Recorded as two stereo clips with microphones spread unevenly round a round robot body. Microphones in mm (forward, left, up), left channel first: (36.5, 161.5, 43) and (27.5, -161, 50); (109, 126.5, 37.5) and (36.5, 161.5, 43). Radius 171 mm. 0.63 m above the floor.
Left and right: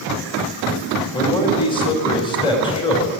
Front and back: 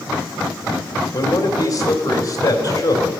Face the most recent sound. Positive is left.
turn(degrees=15)